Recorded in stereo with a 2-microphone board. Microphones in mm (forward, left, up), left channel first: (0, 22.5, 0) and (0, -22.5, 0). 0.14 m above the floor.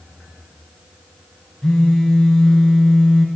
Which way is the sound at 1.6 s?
15° left (ahead or behind).